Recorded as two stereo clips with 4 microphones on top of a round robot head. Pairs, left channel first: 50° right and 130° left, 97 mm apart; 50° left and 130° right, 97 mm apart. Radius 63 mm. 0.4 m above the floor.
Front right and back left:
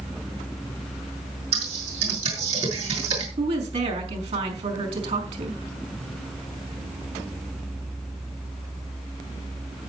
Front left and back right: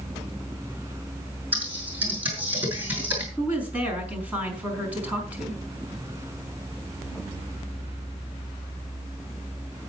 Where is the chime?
I don't hear a chime.